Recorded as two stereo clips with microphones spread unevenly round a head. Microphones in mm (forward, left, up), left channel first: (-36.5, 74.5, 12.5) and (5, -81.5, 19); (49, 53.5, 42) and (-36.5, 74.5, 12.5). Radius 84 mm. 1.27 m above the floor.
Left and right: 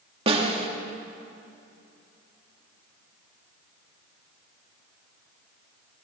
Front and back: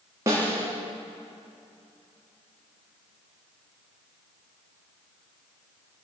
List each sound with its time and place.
0.3 s a snare drum: 130° right, 3 m